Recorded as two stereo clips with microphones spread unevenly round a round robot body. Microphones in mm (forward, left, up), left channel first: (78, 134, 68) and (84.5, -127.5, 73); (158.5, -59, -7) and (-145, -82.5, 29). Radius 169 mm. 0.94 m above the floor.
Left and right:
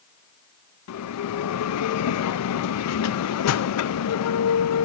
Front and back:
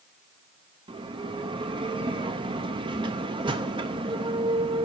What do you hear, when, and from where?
0.9 s a bell: 105° left, 0.6 m